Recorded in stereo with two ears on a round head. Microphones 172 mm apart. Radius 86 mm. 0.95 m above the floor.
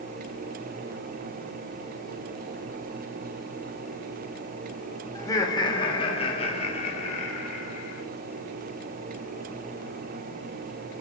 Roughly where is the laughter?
Centre.